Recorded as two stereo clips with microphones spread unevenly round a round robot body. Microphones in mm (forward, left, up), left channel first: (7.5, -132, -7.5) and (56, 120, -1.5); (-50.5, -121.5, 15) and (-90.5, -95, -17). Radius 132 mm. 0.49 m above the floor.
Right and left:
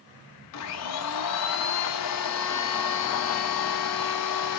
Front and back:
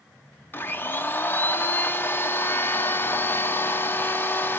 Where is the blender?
100° right, 0.6 m.